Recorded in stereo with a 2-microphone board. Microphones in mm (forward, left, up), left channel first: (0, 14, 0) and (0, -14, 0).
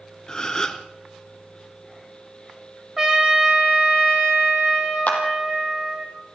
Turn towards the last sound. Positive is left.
turn(degrees=60)  # may be behind; listen again after turning